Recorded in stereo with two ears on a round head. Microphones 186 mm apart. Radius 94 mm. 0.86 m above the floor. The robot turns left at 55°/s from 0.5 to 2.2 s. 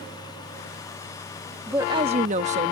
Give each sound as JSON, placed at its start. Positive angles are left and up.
{"t": 1.7, "sound": "a woman speaking", "side_deg": -10}